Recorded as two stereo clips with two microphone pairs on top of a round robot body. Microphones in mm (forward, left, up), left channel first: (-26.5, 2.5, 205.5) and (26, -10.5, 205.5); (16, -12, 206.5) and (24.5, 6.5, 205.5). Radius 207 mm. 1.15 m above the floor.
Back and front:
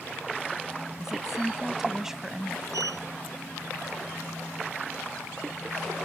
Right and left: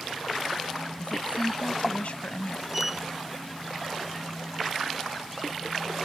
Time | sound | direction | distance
1.0 | a woman speaking | 95° right | ?
2.7 | a sliding door | 15° right | ?